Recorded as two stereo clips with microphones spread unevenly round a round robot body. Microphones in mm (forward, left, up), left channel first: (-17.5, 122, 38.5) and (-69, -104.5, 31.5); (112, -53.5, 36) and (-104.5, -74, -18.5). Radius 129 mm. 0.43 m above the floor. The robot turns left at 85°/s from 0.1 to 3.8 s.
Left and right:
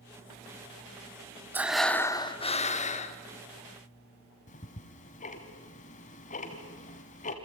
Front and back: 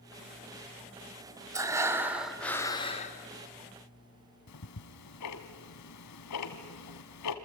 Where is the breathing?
170° right, 1.4 m; by 3.2 s 50° left, 1.4 m.